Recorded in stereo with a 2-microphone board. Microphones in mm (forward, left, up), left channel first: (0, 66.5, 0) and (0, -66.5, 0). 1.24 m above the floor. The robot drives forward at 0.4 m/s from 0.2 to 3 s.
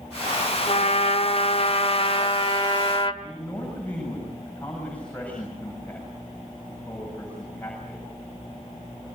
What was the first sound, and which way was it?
A trumpet, 55° left (ahead or behind).